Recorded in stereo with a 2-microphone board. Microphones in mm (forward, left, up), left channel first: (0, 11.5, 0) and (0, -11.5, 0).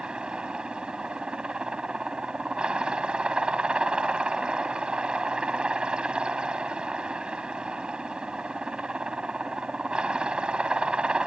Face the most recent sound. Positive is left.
turn(degrees=-50)  # may be behind; listen again after turning